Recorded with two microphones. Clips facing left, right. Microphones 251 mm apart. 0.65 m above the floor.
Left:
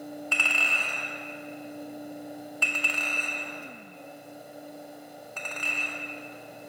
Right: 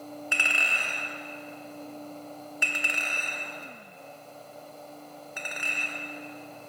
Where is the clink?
15° right (ahead or behind), 0.6 m.